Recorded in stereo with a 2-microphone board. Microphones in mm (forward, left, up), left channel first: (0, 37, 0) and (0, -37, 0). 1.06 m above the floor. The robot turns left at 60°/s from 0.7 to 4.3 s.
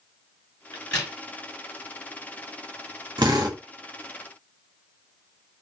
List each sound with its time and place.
0.7 s a crack: 35° left (ahead or behind), 3.5 m; by 1.1 s 10° left (ahead or behind), 3.5 m
3.2 s a drill: 85° right, 2 m; by 3.6 s 65° right (ahead or behind), 2 m